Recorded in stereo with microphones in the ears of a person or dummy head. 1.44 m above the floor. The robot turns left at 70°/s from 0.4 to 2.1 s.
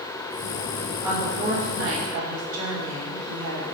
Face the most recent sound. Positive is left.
turn(degrees=-85)